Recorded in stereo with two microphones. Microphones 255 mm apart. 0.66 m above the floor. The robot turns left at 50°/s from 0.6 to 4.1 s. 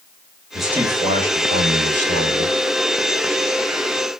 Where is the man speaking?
Straight ahead, 2.0 m; by 2.6 s 100° right, 2.0 m.